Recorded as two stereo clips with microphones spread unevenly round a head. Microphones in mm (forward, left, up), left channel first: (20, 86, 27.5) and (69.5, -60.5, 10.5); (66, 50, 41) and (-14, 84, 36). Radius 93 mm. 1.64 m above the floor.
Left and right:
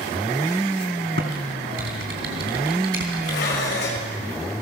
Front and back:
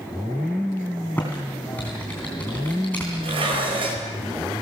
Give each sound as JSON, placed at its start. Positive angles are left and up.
{"t": 1.2, "sound": "typing on a keyboard", "azimuth_deg": -100, "distance_m": 3.0}
{"t": 3.2, "sound": "dishes clattering", "azimuth_deg": 145, "distance_m": 5.0}